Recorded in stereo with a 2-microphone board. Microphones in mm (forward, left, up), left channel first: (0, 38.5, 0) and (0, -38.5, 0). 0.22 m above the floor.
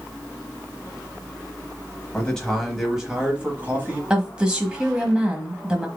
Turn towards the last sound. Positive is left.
turn(degrees=-15)  # may be behind; listen again after turning